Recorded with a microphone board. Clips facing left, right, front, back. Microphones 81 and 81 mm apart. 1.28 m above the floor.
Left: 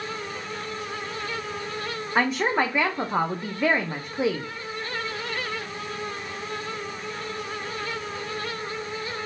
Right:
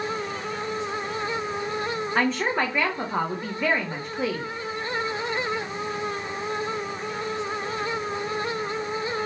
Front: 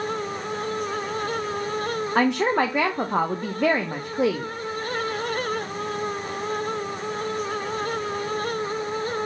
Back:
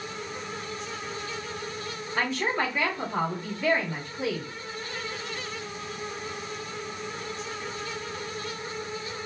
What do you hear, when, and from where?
2.1 s a woman speaking: 10° left, 0.7 m